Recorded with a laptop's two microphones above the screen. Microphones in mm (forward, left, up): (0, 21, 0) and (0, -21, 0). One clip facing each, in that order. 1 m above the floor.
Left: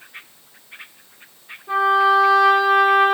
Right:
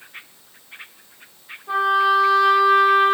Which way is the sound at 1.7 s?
Centre (ahead or behind).